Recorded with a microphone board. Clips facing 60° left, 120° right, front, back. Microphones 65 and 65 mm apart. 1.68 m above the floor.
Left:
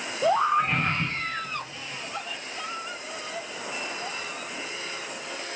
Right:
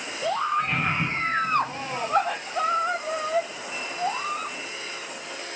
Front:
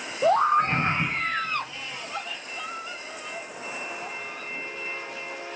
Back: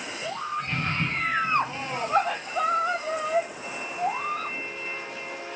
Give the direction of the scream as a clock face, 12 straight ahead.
12 o'clock.